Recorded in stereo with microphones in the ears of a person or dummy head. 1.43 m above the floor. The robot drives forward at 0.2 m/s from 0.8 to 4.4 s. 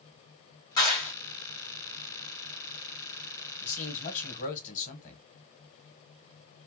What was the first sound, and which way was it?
A clap, 25° left (ahead or behind).